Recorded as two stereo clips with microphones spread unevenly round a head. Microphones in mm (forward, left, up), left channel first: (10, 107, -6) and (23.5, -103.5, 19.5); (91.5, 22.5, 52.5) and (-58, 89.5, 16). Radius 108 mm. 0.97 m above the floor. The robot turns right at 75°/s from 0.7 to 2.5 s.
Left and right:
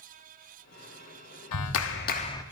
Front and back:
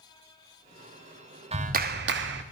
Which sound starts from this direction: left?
A clap, at 1.5 s.